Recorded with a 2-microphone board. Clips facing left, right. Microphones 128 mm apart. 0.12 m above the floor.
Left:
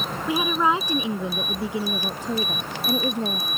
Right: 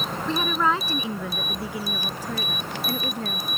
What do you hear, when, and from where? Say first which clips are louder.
0.3 s a woman speaking: left 2 dB; 10° left (ahead or behind); by 3.5 s 25° left (ahead or behind)